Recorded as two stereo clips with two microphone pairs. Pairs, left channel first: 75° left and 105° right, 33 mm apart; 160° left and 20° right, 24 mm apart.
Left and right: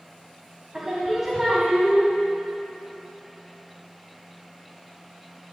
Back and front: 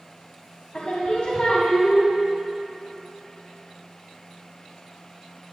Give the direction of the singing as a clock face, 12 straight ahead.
6 o'clock.